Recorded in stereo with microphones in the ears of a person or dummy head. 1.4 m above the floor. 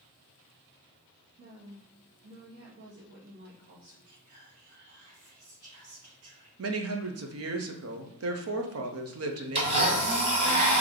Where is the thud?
No thud in this recording.